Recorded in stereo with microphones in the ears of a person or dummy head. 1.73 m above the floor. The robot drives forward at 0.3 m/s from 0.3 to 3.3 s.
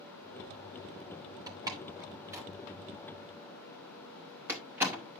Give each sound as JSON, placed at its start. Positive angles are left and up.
{"t": 1.5, "sound": "a door slam", "side_deg": -25, "distance_m": 0.7}